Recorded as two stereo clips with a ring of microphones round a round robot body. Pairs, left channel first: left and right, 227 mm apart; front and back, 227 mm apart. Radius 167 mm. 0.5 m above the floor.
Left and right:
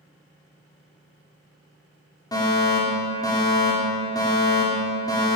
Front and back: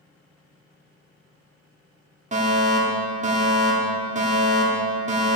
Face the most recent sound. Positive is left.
turn(degrees=155)